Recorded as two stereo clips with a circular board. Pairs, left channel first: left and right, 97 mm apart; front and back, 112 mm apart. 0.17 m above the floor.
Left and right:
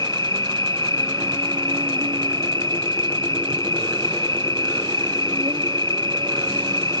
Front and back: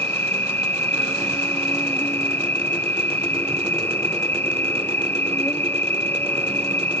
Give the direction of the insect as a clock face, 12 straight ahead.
2 o'clock.